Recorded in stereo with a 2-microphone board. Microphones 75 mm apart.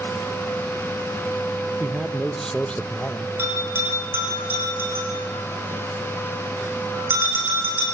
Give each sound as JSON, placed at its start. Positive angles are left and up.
{"t": 1.8, "sound": "a man speaking", "side_deg": -15, "distance_m": 1.0}
{"t": 3.4, "sound": "a bell", "side_deg": -30, "distance_m": 9.0}